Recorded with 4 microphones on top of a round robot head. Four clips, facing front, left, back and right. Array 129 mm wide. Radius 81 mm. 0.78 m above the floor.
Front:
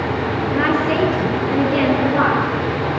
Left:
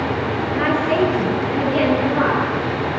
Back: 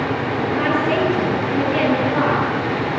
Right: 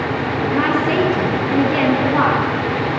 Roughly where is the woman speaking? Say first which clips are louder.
Right 1 dB, front 1 dB; right.